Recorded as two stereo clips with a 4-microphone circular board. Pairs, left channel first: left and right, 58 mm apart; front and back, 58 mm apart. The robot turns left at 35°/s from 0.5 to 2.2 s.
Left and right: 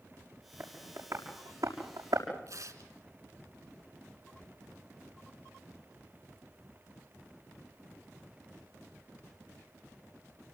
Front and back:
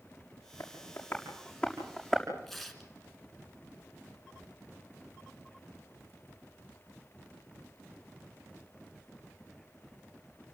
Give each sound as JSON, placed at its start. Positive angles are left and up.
{"t": 0.6, "sound": "tapping", "azimuth_deg": -40, "distance_m": 7.0}
{"t": 2.5, "sound": "tearing paper", "azimuth_deg": -85, "distance_m": 3.0}